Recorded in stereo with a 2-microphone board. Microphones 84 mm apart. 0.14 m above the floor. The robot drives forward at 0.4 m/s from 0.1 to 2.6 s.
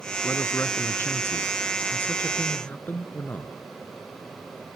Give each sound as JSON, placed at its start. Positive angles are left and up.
{"t": 0.2, "sound": "a man speaking", "side_deg": 30, "distance_m": 1.1}